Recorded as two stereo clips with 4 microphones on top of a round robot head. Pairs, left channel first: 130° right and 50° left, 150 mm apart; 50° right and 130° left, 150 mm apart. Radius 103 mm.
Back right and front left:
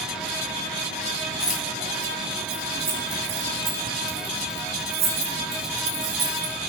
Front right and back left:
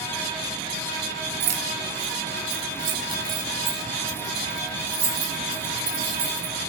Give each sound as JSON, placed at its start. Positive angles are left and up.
{"t": 1.4, "sound": "keys jangling", "azimuth_deg": 135, "distance_m": 1.5}